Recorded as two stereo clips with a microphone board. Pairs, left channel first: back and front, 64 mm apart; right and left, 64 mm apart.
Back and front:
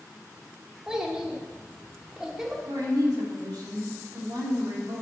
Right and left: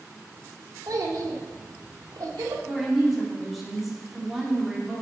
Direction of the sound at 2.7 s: 5° left.